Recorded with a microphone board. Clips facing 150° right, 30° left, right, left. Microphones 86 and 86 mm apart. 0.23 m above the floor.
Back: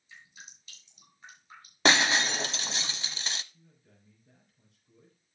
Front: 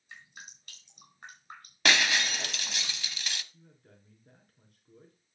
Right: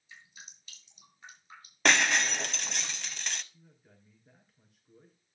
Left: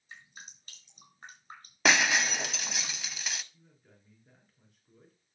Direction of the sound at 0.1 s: 55° left.